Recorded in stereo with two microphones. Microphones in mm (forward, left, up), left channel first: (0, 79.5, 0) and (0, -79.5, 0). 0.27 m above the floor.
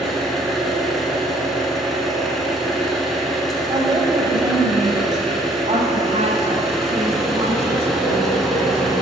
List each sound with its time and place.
0.0 s an engine running: centre (ahead or behind), 1.4 m
3.7 s a woman speaking: 25° right (ahead or behind), 1.4 m
5.7 s a woman speaking: 45° right (ahead or behind), 1.6 m